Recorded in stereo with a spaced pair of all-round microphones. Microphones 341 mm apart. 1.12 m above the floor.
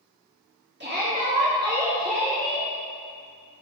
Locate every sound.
0.8 s a shout: 30° right (ahead or behind), 2.5 m; by 2.7 s 20° left (ahead or behind), 1.6 m